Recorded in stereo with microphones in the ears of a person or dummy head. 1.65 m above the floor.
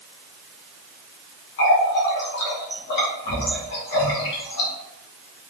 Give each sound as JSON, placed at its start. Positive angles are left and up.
{"t": 1.6, "sound": "a running tap", "side_deg": 55, "distance_m": 1.2}